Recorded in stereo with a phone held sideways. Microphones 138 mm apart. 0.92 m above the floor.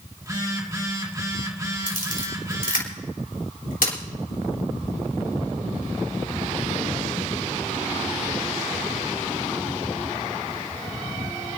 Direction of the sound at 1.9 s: 70° left (ahead or behind).